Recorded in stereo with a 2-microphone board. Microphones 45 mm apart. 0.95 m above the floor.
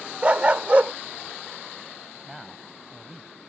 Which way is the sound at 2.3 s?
5° right (ahead or behind).